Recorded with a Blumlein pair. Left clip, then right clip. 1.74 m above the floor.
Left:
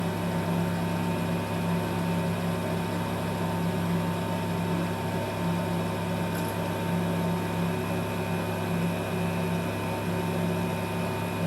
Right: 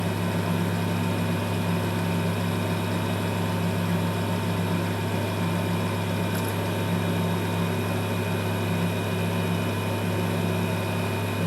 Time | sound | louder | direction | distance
0.0 | a fan | right 2 dB | 15° right | 0.7 m